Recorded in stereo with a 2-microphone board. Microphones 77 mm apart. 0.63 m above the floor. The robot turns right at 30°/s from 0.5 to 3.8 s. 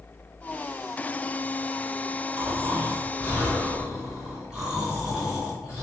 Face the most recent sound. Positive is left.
turn(degrees=-15)